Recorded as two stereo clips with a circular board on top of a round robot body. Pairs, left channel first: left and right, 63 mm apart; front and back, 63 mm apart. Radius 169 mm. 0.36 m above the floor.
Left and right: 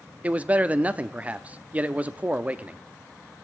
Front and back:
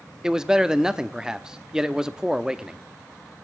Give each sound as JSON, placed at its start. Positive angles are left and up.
{"t": 0.2, "sound": "a man speaking", "azimuth_deg": -115, "distance_m": 0.9}